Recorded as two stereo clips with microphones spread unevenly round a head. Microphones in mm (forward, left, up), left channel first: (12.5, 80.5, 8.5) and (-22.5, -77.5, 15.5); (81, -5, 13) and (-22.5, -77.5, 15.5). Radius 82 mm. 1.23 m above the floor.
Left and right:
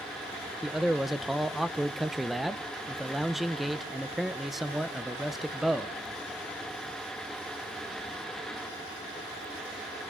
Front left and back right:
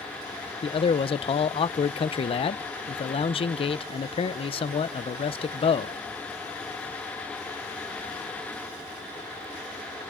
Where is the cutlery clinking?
No cutlery clinking in this recording.